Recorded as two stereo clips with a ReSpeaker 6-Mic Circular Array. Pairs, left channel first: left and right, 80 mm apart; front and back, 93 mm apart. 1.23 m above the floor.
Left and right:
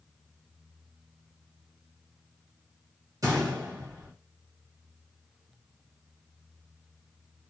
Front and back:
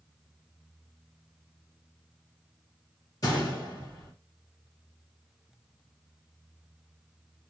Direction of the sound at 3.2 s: 45° right.